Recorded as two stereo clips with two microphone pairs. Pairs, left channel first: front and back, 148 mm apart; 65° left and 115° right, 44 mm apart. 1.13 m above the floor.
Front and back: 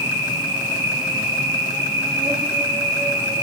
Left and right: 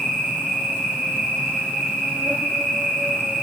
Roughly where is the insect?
Behind right.